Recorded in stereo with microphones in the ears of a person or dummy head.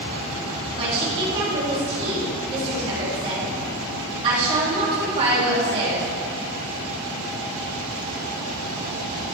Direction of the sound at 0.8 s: 30° right (ahead or behind).